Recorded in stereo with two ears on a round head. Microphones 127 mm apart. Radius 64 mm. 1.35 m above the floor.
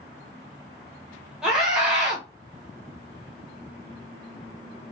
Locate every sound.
1.4 s a scream: 5° right (ahead or behind), 1.0 m